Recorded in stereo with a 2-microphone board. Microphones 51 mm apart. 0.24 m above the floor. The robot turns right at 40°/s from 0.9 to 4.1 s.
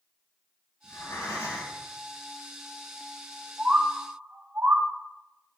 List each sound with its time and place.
0.8 s breathing: 70° left, 2.5 m; by 1.8 s 110° left, 2.5 m
3.6 s a bird: 10° right (ahead or behind), 0.8 m; by 4.8 s 30° right (ahead or behind), 0.8 m